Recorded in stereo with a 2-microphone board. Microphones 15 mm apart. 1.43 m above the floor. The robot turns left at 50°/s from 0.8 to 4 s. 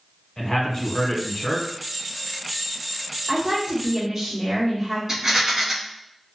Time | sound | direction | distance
0.4 | a man speaking | 130° left | 1.2 m
3.3 | a woman speaking | 100° right | 0.9 m
5.1 | a rattle | 30° right (ahead or behind) | 1.3 m